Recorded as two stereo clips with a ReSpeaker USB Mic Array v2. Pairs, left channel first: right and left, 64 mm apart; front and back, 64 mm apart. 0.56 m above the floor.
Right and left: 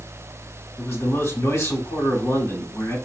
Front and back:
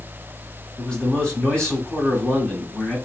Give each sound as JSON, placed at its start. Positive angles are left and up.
{"t": 0.8, "sound": "a man speaking", "azimuth_deg": -70, "distance_m": 2.0}